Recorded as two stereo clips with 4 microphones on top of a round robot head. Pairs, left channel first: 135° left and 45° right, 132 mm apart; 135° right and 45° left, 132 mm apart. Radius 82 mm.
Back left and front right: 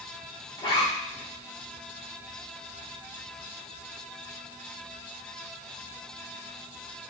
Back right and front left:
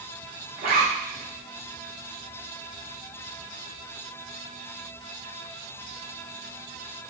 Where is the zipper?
75° left, 1.2 m.